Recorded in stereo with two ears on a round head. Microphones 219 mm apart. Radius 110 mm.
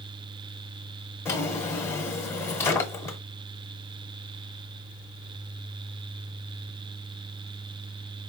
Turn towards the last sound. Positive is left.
turn(degrees=10)  # may be behind; listen again after turning